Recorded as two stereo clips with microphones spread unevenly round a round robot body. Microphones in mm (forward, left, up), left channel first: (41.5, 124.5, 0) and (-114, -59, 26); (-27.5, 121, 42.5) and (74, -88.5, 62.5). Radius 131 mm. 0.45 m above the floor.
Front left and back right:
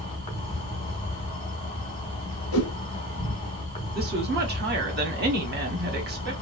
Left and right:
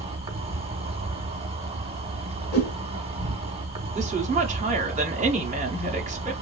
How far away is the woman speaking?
About 1.1 m.